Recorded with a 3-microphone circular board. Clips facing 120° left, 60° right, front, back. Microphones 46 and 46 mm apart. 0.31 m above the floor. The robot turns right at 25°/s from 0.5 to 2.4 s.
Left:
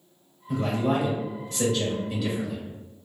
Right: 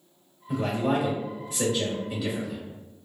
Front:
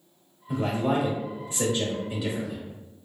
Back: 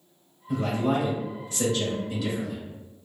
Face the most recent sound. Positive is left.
turn(degrees=30)